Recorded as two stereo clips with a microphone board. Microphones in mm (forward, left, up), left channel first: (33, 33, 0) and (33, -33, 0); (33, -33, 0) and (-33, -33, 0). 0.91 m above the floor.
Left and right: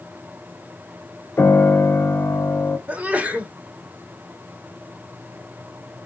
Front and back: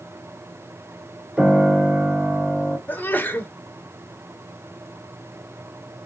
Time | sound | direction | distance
1.4 | a piano | 125° left | 0.8 m
2.9 | a sneeze | 40° right | 0.9 m